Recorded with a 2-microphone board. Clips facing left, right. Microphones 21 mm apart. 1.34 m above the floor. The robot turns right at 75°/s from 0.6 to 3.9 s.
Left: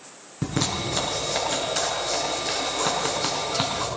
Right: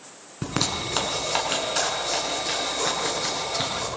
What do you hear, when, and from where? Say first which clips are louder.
0.4 s a zipper: even; 50° right (ahead or behind), 6.5 m; by 3.9 s 65° left (ahead or behind), 6.5 m